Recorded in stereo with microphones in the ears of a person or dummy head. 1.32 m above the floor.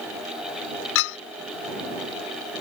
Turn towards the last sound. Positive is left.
turn(degrees=70)  # may be behind; listen again after turning